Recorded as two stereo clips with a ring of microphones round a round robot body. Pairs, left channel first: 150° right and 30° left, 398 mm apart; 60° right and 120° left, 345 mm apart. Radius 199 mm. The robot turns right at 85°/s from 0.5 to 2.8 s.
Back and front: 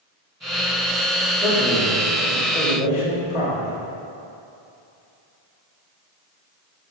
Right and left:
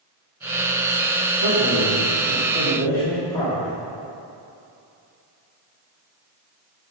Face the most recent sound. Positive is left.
turn(degrees=-140)